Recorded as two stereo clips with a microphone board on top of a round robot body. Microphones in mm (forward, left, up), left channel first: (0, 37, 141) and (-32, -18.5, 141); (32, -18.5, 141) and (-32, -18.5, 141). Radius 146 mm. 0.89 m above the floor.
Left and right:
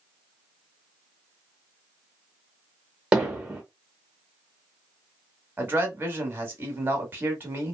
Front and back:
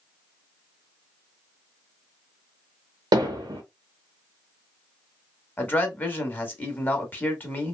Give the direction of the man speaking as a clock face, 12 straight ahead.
2 o'clock.